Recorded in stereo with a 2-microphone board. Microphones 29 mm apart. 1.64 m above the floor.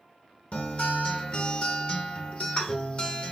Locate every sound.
0.5 s a guitar: 40° left (ahead or behind), 0.9 m